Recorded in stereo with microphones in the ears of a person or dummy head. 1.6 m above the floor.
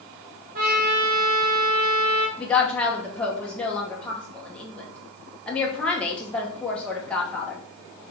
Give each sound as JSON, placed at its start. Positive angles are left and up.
{"t": 0.6, "sound": "a trumpet", "side_deg": -40, "distance_m": 0.9}
{"t": 2.4, "sound": "a woman speaking", "side_deg": 15, "distance_m": 1.1}